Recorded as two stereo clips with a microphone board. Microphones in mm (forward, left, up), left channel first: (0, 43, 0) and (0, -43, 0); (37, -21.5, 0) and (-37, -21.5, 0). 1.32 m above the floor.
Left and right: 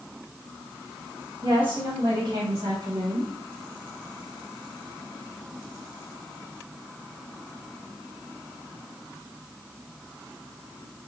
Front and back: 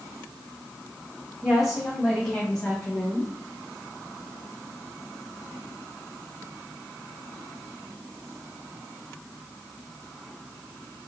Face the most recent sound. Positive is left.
turn(degrees=-80)